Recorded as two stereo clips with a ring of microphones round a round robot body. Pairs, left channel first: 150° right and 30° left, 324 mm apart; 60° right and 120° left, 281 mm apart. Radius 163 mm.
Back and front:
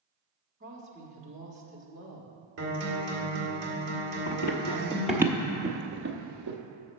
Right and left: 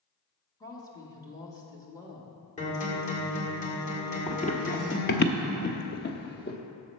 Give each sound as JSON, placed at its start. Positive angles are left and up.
{"t": 0.6, "sound": "a woman speaking", "azimuth_deg": 0, "distance_m": 1.1}
{"t": 2.6, "sound": "a guitar", "azimuth_deg": 0, "distance_m": 2.0}
{"t": 4.3, "sound": "running footsteps", "azimuth_deg": -120, "distance_m": 0.7}